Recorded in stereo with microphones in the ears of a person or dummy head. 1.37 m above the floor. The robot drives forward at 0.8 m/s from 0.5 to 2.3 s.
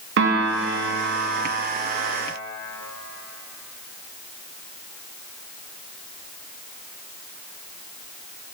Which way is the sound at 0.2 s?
70° right (ahead or behind).